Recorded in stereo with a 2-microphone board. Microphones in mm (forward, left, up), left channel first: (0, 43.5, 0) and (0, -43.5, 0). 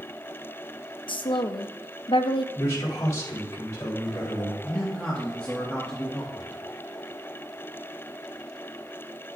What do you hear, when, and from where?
1.1 s a woman speaking: 70° left (ahead or behind), 0.7 m
2.5 s a man speaking: 35° left (ahead or behind), 3.5 m
4.6 s a man speaking: 15° left (ahead or behind), 1.7 m